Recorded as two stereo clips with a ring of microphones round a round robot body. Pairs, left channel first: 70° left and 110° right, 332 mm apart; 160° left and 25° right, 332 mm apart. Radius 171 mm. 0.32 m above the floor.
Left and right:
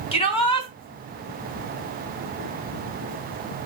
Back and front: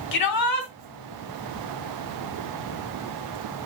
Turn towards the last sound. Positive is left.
turn(degrees=140)